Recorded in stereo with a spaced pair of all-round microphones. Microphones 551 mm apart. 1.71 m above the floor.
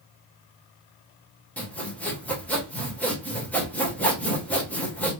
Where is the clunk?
I don't hear a clunk.